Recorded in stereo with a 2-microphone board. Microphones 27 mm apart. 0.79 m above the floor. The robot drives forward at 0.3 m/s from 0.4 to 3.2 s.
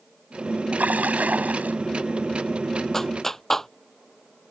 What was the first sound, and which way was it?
A splash, 85° right.